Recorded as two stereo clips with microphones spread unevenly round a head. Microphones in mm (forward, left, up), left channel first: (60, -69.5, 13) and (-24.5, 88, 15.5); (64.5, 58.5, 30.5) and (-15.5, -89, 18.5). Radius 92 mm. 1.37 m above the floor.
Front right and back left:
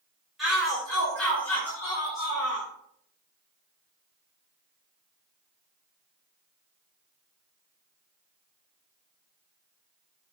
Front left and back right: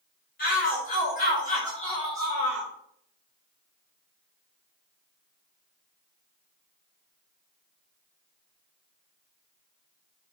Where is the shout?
30° left, 5 m; by 2.7 s 5° left, 4.5 m.